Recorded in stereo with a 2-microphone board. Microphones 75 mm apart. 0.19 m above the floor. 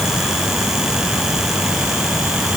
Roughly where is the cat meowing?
No cat meowing in this recording.